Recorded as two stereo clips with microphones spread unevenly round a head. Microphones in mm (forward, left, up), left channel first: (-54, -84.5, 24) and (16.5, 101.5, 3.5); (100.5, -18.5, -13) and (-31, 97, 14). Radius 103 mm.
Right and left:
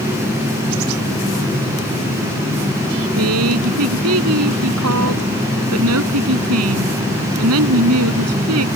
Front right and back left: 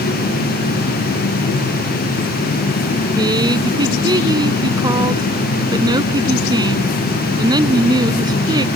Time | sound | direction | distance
3.2 | a woman speaking | 70° left | ?